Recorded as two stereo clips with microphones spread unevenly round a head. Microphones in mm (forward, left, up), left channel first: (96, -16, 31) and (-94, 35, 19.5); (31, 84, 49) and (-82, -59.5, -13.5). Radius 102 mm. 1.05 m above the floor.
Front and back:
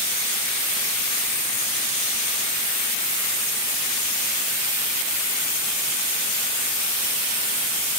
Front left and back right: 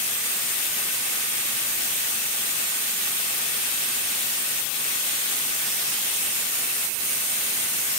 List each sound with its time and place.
Only background noise.